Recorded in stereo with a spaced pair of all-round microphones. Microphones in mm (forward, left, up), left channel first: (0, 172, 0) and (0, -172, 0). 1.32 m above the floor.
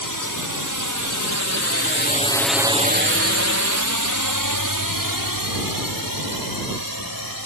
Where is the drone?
70° left (ahead or behind); by 7.5 s 80° right.